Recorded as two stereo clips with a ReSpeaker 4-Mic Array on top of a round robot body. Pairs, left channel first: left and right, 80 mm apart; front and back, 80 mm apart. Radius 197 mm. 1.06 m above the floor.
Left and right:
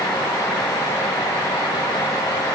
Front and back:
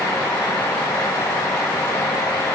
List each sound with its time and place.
Only background noise.